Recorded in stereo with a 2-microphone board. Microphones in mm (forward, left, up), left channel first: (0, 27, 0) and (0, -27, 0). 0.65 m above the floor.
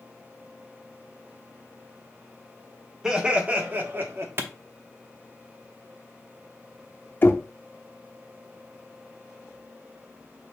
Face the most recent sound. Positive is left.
turn(degrees=35)  # may be behind; listen again after turning